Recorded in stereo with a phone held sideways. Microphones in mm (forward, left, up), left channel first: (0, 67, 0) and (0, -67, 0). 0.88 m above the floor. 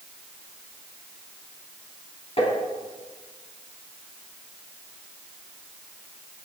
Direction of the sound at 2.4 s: 45° left (ahead or behind).